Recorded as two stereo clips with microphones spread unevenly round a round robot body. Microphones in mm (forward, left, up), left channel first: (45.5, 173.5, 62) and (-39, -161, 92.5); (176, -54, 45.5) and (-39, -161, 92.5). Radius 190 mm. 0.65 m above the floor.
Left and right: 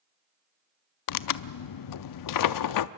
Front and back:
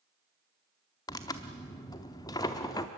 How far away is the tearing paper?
About 0.6 m.